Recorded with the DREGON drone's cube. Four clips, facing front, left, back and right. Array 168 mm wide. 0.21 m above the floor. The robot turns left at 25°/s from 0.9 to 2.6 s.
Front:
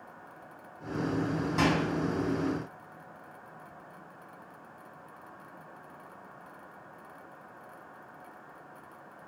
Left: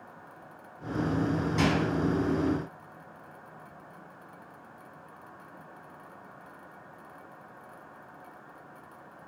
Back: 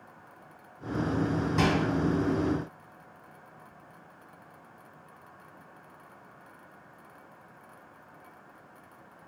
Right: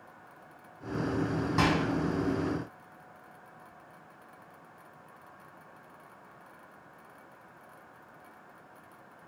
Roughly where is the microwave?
Right.